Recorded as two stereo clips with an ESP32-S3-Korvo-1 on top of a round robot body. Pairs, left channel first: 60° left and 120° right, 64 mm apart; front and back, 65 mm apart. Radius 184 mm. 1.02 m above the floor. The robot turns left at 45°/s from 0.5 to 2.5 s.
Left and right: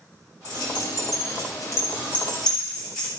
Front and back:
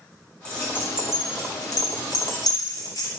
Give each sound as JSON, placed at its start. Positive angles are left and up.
{"t": 0.5, "sound": "keys jangling", "azimuth_deg": 70, "distance_m": 2.5}